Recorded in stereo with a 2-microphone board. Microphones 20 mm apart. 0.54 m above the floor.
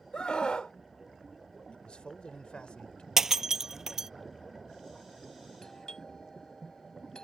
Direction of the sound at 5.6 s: 30° left (ahead or behind).